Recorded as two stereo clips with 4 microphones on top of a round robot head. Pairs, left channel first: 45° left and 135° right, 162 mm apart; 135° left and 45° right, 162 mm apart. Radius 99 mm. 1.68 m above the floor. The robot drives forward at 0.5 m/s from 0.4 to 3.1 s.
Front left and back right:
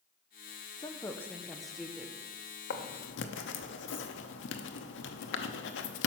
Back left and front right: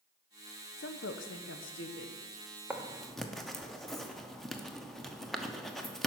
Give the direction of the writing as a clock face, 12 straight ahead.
11 o'clock.